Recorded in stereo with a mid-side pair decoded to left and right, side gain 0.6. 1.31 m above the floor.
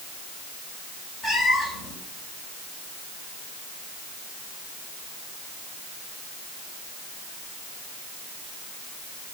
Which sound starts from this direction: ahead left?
A cat meowing, at 1.2 s.